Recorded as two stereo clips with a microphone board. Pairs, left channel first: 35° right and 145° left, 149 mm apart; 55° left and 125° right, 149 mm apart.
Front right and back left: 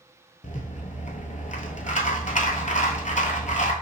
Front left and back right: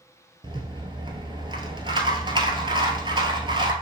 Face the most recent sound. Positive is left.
turn(degrees=-65)